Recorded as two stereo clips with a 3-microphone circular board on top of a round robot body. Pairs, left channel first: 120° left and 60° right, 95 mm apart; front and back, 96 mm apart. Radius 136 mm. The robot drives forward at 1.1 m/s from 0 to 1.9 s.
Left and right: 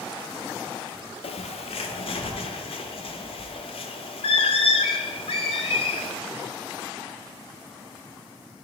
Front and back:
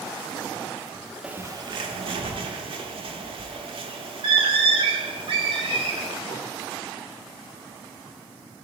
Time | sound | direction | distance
1.2 | a bird | 95° left | 0.5 m